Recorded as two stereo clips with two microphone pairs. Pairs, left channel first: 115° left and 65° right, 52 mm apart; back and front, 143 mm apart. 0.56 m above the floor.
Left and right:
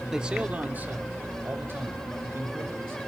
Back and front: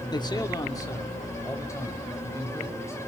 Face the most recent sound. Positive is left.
turn(degrees=-110)